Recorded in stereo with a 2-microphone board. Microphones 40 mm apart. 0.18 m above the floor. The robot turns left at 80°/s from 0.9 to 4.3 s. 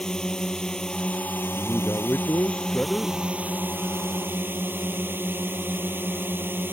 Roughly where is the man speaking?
Behind left.